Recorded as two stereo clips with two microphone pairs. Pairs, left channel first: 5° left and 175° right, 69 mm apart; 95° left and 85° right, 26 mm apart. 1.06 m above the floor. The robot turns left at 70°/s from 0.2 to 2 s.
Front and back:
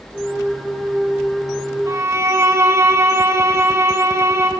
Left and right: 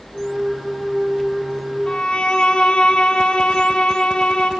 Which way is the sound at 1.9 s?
150° left.